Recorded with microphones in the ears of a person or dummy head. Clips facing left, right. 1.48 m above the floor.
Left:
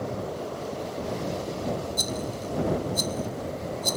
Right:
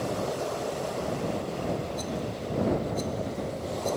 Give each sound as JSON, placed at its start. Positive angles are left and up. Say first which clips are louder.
{"t": 2.0, "sound": "a rattle", "louder": "left 1 dB", "side_deg": 60}